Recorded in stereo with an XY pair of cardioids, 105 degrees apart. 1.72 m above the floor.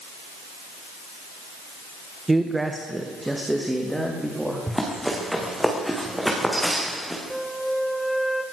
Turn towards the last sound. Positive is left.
turn(degrees=0)